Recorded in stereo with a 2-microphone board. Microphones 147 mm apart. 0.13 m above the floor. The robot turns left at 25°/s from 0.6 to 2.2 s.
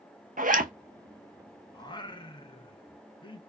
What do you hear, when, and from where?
0.4 s a zipper: 70° right (ahead or behind), 0.7 m
1.7 s singing: 30° left (ahead or behind), 0.6 m; by 3.4 s 35° left (ahead or behind), 0.6 m